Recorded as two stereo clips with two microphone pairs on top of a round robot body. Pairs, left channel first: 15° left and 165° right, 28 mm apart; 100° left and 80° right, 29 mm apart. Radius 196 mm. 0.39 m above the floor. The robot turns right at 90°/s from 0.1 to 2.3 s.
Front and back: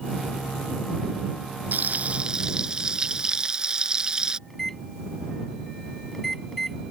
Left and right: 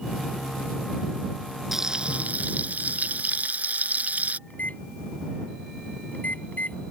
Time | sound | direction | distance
1.7 | frying | 160° right | ?
4.5 | a microwave | 90° left | ?